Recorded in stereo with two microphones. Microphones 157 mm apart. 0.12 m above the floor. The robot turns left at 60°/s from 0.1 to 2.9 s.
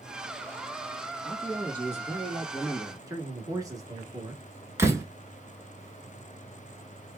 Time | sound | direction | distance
1.2 | a man speaking | centre (ahead or behind) | 1.2 m
3.1 | a man speaking | 20° right (ahead or behind) | 1.2 m
4.8 | a door slam | 20° right (ahead or behind) | 0.9 m